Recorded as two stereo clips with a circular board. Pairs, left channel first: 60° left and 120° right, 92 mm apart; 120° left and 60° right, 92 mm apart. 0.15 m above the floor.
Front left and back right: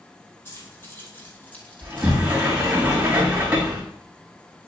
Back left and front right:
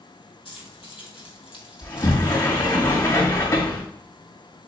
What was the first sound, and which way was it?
Keys jangling, 120° left.